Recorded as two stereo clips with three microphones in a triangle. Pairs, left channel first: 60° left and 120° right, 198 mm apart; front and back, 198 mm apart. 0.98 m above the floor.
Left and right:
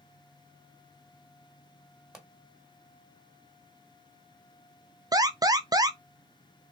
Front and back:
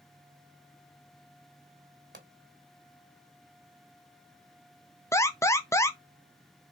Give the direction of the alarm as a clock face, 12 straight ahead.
2 o'clock.